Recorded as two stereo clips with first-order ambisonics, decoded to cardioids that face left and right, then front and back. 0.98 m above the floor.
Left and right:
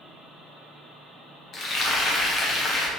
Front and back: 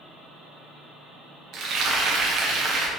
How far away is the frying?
About 0.6 m.